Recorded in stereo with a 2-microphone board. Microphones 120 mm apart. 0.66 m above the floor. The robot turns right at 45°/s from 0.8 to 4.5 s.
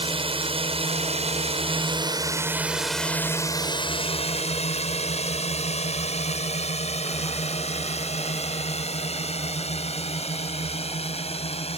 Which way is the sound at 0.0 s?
50° right (ahead or behind).